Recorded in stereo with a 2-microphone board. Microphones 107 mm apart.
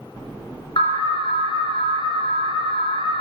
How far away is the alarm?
About 1.3 m.